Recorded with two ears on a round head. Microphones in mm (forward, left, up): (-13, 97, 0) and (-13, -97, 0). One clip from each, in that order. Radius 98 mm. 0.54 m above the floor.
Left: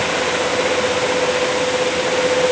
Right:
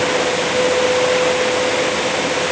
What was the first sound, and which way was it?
Only background noise.